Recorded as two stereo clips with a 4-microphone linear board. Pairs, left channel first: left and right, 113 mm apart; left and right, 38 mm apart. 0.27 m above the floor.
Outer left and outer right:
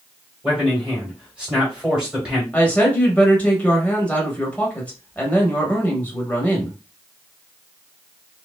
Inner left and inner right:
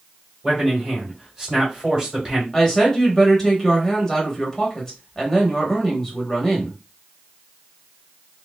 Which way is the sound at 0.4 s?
10° right (ahead or behind).